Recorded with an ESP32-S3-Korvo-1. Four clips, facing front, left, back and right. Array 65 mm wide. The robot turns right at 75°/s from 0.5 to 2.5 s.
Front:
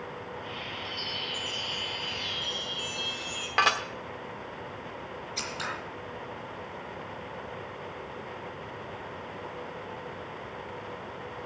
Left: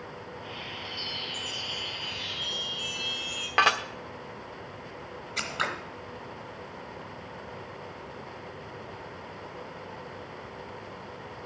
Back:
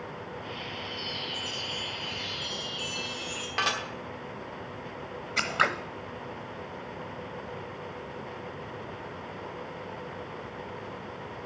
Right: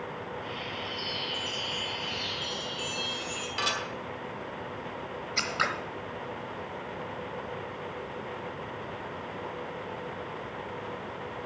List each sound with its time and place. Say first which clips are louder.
0.8 s a chime: right 3 dB, even; 90° left, 4.5 m; by 3.5 s 145° right, 4.5 m
3.6 s dishes clattering: left 9 dB, front 5 dB; 60° left, 1.2 m
5.4 s scissors: right 2 dB, back 11 dB; 175° right, 1.0 m